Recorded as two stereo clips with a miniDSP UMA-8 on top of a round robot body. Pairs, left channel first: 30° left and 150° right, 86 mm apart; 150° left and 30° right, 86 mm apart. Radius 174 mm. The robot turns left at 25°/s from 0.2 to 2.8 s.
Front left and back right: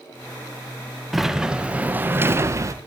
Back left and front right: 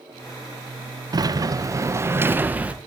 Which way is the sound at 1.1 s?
60° right.